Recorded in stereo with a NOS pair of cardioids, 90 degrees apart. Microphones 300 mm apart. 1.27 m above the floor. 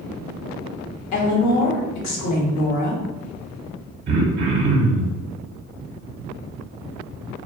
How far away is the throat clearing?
About 0.9 m.